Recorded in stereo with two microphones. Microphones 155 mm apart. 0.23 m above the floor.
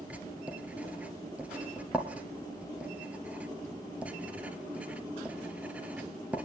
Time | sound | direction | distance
0.1 | writing | 10° right (ahead or behind) | 1.7 m